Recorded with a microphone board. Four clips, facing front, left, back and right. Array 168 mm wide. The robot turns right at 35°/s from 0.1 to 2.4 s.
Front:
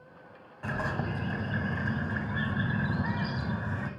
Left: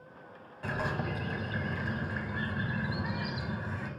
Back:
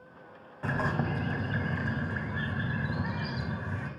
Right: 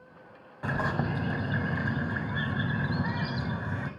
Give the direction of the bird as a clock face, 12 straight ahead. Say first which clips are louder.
Right 4 dB, back 2 dB; 4 o'clock.